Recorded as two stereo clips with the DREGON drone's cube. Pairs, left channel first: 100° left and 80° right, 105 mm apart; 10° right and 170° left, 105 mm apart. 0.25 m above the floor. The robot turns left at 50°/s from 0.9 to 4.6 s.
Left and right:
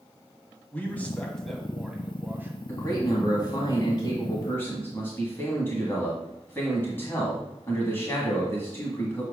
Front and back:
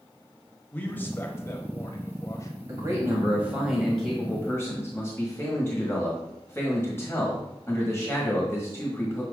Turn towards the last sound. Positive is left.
turn(degrees=45)